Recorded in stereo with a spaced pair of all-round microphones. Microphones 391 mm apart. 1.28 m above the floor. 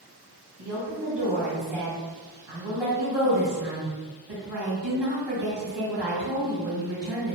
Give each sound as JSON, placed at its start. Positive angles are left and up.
{"t": 0.6, "sound": "a woman speaking", "side_deg": -80, "distance_m": 1.4}